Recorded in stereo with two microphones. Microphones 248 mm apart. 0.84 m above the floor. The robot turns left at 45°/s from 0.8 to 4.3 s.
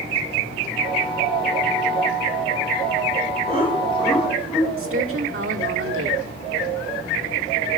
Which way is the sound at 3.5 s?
25° right (ahead or behind).